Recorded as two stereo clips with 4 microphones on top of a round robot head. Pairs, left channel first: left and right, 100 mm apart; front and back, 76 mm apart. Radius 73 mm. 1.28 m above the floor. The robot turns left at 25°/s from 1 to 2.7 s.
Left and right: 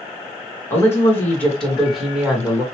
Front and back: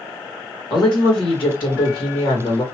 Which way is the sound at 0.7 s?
25° left.